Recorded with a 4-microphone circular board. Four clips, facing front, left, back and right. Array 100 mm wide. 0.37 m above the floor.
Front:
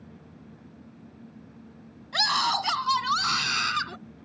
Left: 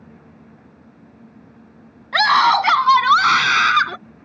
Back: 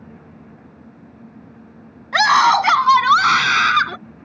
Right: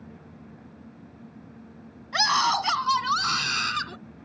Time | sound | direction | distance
2.1 | a scream | 150° left | ?